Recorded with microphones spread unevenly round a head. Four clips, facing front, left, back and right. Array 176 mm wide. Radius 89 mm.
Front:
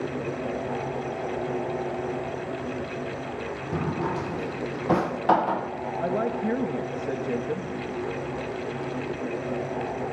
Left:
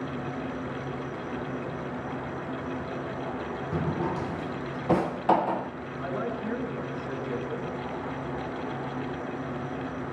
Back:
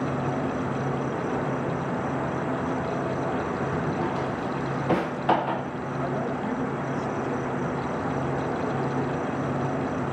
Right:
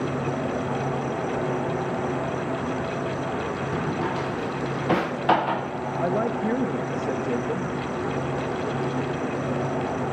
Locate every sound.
0.0 s an insect: 145° right, 0.9 m
3.7 s a drawer: 175° left, 0.5 m
6.0 s a woman speaking: 60° right, 2 m